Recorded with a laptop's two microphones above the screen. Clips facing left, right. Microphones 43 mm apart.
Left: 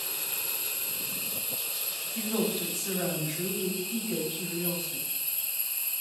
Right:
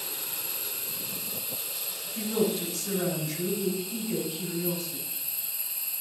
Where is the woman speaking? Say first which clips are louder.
Right 3 dB; 15° left (ahead or behind), 5.5 m.